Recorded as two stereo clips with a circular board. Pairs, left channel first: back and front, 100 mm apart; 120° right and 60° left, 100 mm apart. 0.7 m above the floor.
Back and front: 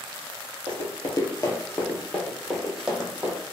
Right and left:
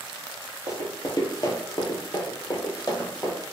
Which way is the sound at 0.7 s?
170° right.